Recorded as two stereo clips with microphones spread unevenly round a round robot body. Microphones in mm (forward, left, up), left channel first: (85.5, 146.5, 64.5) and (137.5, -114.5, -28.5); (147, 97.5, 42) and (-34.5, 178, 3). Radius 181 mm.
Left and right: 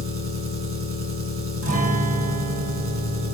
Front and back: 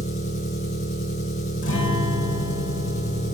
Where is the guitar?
40° right, 2.5 m.